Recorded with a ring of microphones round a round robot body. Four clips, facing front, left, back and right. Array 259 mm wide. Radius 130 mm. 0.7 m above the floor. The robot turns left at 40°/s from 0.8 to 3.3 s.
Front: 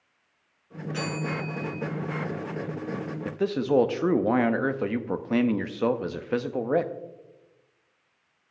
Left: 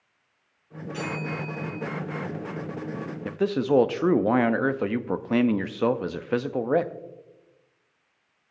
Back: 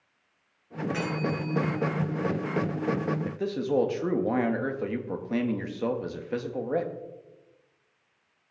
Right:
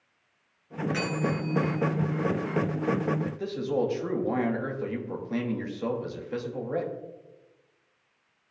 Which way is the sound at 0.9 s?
110° right.